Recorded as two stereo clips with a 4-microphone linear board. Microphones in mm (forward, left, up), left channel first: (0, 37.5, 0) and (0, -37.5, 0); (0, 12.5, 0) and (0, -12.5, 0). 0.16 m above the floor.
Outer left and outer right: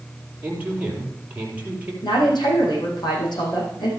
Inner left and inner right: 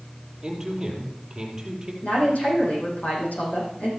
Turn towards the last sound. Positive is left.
turn(degrees=75)  # may be behind; listen again after turning